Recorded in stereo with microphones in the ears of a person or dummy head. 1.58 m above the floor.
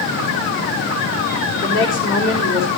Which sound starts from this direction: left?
A woman speaking, at 1.6 s.